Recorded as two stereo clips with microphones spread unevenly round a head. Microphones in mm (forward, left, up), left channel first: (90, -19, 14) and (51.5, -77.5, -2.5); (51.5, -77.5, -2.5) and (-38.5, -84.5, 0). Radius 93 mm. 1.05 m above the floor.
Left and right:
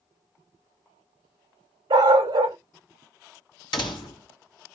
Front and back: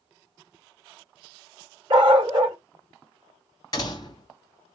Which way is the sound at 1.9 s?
145° right.